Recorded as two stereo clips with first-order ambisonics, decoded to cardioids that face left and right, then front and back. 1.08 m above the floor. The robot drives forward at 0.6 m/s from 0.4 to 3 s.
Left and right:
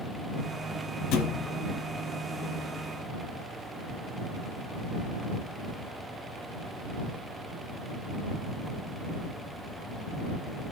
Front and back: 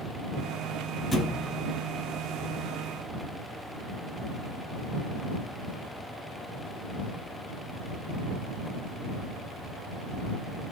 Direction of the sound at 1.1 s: 75° left.